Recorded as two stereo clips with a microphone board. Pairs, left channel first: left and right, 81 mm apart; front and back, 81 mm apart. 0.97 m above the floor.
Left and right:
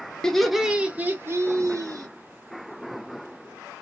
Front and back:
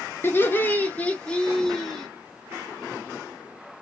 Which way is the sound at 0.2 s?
15° left.